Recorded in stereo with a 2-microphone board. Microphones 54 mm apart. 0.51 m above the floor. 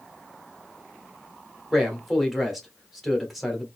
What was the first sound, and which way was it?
A man speaking, centre (ahead or behind).